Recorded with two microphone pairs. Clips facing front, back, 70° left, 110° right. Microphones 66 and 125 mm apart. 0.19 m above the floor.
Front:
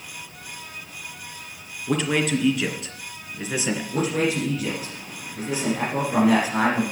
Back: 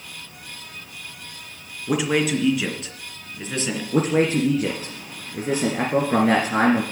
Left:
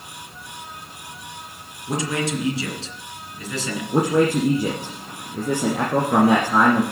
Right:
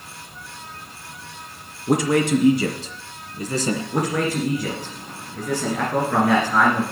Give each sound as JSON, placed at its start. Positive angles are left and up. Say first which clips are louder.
{"t": 1.9, "sound": "a man speaking", "louder": "back 1 dB, right 6 dB", "azimuth_deg": -100, "distance_m": 2.5}
{"t": 3.9, "sound": "a man speaking", "louder": "back 5 dB, left 8 dB", "azimuth_deg": 130, "distance_m": 2.0}